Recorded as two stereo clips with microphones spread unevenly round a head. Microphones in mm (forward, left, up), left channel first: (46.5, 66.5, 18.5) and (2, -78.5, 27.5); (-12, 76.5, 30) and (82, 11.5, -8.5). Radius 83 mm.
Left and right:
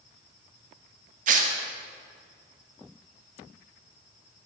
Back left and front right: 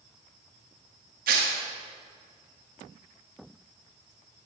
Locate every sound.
1.3 s tearing paper: 75° right, 0.6 m